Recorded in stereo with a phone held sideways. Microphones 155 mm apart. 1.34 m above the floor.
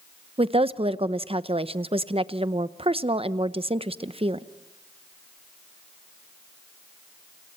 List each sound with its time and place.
0.4 s a woman speaking: 40° right (ahead or behind), 0.7 m